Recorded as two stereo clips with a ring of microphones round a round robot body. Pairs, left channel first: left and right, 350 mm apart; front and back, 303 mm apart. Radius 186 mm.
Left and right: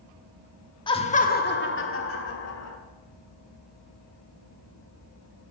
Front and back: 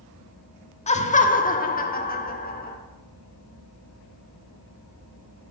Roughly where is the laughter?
Ahead left.